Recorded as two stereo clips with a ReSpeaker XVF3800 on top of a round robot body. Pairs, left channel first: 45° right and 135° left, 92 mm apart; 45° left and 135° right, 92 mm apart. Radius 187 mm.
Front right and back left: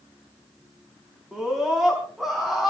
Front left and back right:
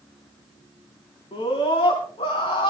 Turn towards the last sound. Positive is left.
turn(degrees=50)